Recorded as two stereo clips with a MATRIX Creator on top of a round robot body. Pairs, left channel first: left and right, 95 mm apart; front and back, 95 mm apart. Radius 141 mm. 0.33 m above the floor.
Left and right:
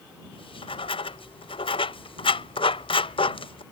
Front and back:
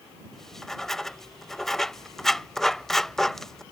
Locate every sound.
0.3 s writing: 85° left